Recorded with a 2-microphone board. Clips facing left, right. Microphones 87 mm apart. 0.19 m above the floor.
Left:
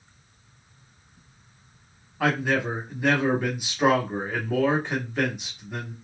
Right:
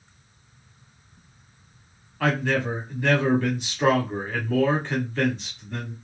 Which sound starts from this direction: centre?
A man speaking, at 2.2 s.